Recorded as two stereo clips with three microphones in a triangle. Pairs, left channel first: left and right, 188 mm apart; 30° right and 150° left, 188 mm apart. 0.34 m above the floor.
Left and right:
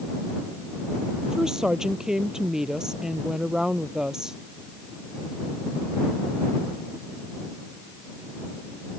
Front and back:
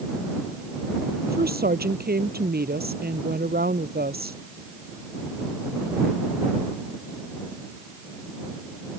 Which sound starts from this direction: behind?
A woman speaking, at 1.2 s.